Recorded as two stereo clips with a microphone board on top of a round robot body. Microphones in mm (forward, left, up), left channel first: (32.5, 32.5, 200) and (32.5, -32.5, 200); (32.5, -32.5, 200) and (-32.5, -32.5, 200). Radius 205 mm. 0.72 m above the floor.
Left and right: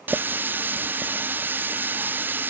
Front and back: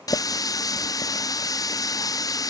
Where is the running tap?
30° right.